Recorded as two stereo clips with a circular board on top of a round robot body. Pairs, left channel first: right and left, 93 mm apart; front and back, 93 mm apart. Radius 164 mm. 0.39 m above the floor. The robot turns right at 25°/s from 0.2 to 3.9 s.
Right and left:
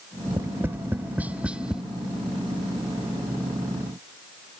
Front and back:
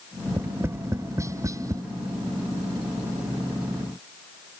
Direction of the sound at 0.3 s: 130° left.